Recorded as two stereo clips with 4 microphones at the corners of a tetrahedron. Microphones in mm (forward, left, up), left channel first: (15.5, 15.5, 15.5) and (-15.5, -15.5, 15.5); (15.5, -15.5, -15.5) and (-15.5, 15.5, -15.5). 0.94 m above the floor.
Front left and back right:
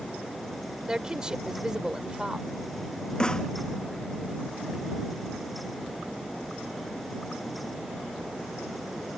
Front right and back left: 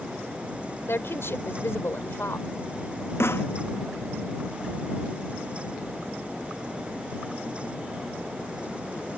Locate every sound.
0.9 s a woman speaking: 60° right
3.2 s a snare drum: 25° right